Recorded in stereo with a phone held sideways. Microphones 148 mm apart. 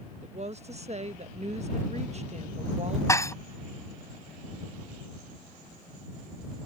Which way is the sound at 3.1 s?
20° left (ahead or behind).